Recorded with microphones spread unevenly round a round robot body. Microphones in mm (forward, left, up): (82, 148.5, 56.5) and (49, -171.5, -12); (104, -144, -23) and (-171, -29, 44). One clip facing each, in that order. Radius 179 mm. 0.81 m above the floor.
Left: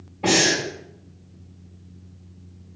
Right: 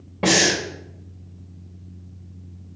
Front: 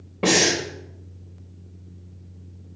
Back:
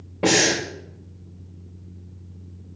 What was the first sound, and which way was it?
Breathing, 105° right.